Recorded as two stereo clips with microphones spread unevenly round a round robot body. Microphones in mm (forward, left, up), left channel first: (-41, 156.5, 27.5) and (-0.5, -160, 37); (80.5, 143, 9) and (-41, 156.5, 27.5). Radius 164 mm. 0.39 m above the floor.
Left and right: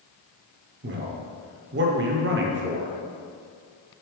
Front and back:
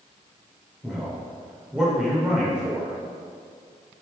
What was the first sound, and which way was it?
A man speaking, 90° right.